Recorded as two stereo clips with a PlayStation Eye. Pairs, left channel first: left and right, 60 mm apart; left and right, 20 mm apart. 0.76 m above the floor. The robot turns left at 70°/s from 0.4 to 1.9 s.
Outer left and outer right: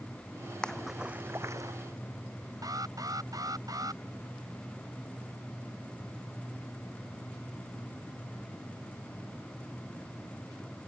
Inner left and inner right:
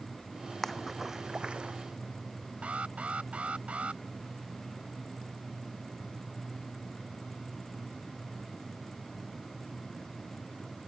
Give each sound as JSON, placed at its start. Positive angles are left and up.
{"t": 0.6, "sound": "a splash", "side_deg": 10}
{"t": 2.6, "sound": "an alarm", "side_deg": -65}